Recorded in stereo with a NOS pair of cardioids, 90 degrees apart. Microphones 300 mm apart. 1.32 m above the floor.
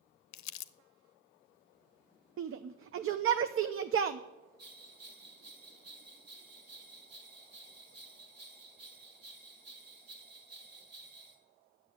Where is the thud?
No thud in this recording.